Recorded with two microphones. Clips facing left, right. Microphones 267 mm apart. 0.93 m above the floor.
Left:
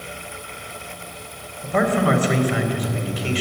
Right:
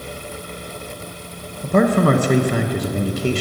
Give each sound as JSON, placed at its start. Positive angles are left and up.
{"t": 1.6, "sound": "a man speaking", "side_deg": -50, "distance_m": 0.7}